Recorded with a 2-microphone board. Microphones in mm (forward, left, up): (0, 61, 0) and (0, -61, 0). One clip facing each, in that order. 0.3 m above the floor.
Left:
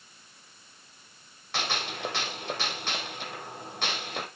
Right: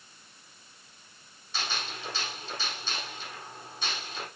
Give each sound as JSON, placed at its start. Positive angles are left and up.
{"t": 1.5, "sound": "a gunshot", "side_deg": 70, "distance_m": 2.5}